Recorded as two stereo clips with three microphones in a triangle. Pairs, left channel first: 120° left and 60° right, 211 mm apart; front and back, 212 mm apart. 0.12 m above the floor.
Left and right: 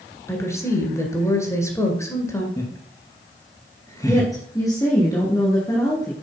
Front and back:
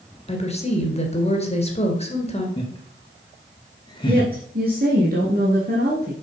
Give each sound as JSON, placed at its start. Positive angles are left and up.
{"t": 0.3, "sound": "a woman speaking", "azimuth_deg": 45, "distance_m": 2.0}
{"t": 2.6, "sound": "laughter", "azimuth_deg": 55, "distance_m": 1.7}
{"t": 4.1, "sound": "a woman speaking", "azimuth_deg": -175, "distance_m": 1.9}